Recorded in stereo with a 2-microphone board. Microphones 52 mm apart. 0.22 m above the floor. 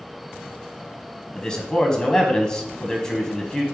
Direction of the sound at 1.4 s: 15° left (ahead or behind).